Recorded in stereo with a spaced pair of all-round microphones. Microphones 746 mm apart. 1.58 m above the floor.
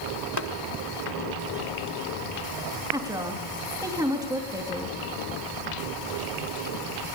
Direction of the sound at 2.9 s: 5° right (ahead or behind).